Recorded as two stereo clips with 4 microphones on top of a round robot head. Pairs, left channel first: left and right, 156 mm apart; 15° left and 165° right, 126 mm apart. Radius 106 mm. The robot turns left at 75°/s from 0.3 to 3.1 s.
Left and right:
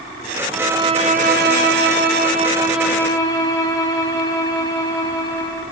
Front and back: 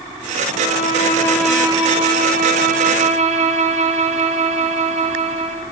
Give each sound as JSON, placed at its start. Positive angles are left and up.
{"t": 0.5, "sound": "a violin", "azimuth_deg": -5, "distance_m": 2.5}